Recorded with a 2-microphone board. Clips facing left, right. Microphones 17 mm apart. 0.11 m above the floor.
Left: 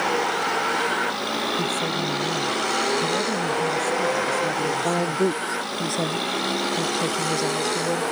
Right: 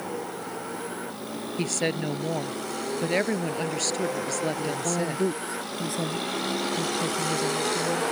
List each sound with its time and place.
0.0 s a vehicle: 55° left (ahead or behind); by 8.1 s 5° left (ahead or behind)
1.6 s a woman speaking: 50° right (ahead or behind)
4.6 s a woman speaking: 35° left (ahead or behind)